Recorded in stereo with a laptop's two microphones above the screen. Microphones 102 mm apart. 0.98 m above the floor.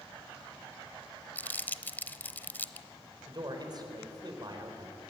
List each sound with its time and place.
1.4 s crumpling: 20° left (ahead or behind), 0.8 m
3.3 s a man speaking: 40° right (ahead or behind), 4 m